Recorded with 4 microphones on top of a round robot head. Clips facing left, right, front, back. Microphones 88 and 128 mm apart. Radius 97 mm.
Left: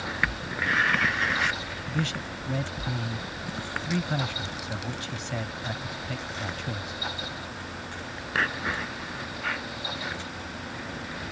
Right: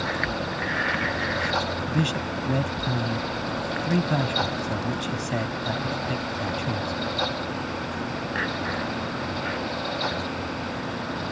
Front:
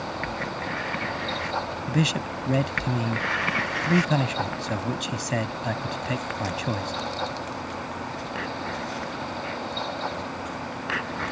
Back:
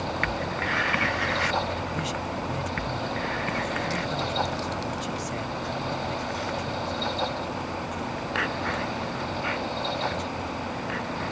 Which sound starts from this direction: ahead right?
A man speaking, at 1.9 s.